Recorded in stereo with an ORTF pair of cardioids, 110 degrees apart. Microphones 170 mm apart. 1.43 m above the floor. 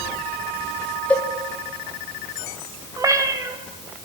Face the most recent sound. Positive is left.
turn(degrees=-20)